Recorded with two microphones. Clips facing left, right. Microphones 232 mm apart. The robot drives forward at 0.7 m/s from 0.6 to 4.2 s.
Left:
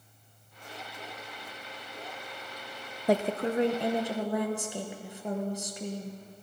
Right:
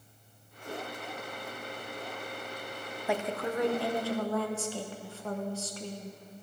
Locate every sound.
3.1 s a woman speaking: 40° left (ahead or behind), 0.5 m; by 6.2 s 15° left (ahead or behind), 1.2 m